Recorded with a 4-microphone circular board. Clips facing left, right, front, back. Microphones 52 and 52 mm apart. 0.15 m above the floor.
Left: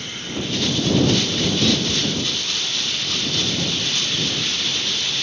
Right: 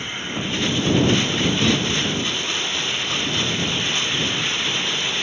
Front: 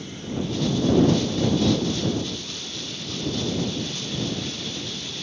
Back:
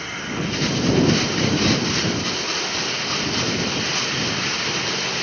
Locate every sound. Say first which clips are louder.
0.0 s running water: right 1 dB, back 4 dB; 155° right